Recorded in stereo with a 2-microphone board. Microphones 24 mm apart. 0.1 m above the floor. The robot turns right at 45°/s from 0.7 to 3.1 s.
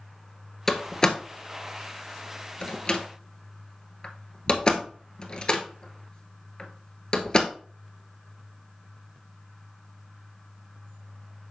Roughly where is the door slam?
Centre.